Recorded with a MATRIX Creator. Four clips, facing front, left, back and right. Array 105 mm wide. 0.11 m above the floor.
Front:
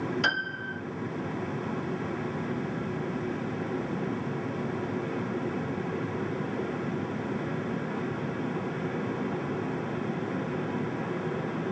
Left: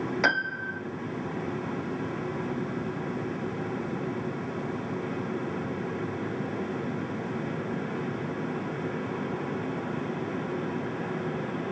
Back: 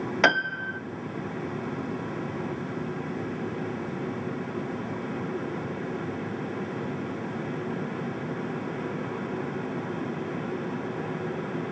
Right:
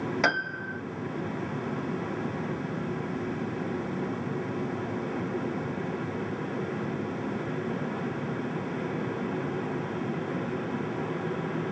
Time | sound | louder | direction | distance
0.2 | a piano | left 1 dB, back 6 dB | 175° right | 0.8 m